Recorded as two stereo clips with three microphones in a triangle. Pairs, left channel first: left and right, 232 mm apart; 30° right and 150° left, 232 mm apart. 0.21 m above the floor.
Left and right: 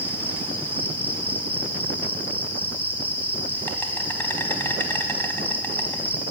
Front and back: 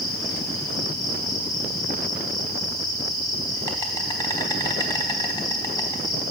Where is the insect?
20° left, 0.9 m.